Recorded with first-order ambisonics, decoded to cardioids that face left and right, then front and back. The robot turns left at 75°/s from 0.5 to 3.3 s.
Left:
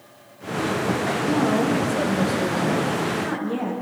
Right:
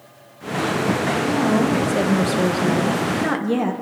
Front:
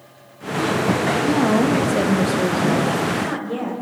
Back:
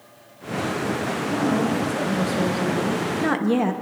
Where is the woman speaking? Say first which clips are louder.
Even, front 3 dB; 10° left, 1.1 m; by 3.7 s 145° right, 1.1 m.